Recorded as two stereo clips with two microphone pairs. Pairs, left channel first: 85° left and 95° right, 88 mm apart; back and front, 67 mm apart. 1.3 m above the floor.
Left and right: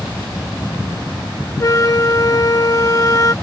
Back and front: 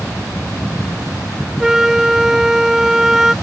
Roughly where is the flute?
Left.